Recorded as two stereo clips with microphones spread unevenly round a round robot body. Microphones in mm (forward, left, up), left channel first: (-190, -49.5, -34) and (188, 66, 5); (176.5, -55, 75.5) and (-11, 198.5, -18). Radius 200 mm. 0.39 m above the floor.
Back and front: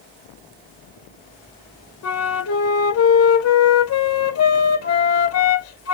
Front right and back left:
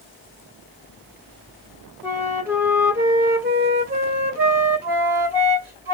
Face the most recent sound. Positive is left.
turn(degrees=-175)